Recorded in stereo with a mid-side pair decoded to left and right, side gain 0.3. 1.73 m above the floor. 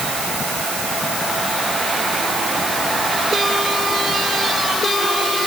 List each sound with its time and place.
Only background noise.